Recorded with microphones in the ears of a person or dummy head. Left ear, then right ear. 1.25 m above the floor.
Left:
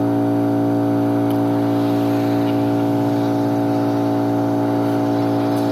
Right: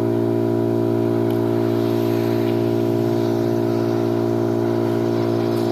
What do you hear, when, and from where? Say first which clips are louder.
0.0 s an engine running: left 1 dB; 5° left (ahead or behind), 2.5 m